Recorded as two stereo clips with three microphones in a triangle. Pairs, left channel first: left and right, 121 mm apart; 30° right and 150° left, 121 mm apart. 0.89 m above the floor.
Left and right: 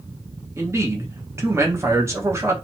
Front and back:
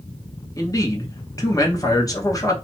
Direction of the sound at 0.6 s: 50° right.